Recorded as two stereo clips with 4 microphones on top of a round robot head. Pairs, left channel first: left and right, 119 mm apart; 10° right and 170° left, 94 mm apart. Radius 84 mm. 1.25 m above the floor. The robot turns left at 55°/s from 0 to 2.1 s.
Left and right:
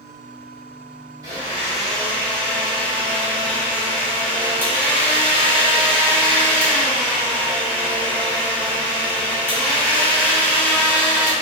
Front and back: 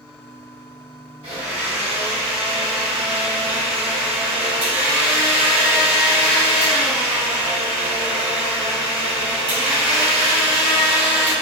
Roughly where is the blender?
Behind right.